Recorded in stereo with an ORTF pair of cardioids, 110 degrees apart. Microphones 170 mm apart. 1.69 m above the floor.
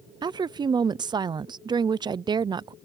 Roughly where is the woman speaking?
Ahead right.